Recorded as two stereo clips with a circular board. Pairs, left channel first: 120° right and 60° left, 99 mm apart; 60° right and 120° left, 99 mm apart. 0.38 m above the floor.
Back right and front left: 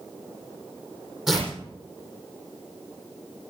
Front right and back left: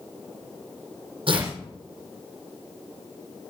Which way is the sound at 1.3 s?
145° left.